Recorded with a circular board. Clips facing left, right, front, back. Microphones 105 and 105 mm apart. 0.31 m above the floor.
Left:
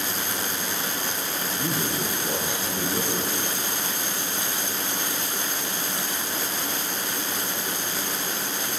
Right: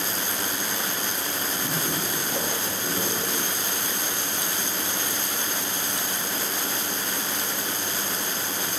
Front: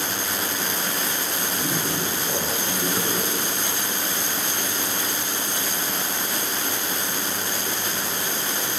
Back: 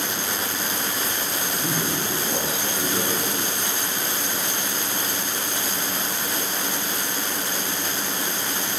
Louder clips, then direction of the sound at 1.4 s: Left 3 dB, even; 100° left.